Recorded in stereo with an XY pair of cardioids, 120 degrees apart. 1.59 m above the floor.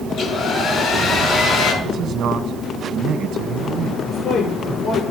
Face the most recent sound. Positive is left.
turn(degrees=60)